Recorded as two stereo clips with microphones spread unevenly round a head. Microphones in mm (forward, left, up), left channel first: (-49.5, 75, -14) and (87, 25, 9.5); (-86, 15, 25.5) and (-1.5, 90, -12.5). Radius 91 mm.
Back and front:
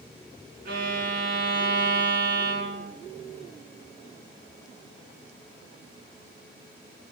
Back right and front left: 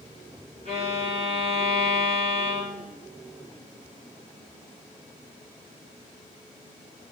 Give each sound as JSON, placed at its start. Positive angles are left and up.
{"t": 0.7, "sound": "a violin", "azimuth_deg": -25, "distance_m": 5.0}